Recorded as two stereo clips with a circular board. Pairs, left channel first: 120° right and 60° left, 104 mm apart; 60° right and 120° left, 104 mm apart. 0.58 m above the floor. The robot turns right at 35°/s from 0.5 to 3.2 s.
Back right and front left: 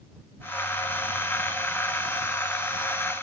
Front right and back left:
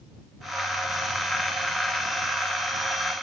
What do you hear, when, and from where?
Only background noise.